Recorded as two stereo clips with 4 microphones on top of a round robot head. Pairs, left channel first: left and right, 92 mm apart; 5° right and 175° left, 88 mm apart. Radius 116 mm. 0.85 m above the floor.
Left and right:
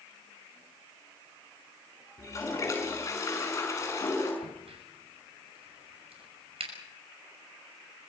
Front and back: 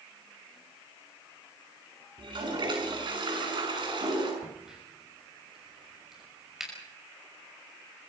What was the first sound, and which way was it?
A toilet flushing, 145° left.